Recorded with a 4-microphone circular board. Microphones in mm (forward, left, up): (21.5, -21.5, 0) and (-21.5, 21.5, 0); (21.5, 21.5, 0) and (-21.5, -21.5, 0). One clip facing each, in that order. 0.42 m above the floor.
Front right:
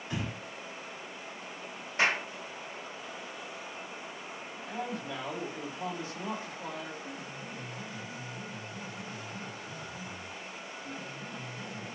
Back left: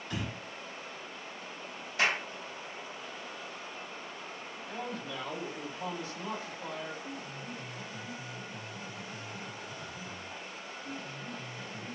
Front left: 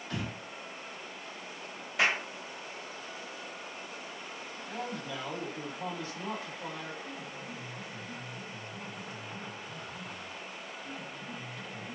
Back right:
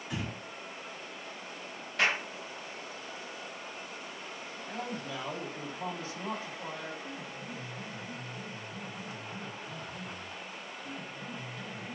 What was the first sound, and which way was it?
Breathing, 80° right.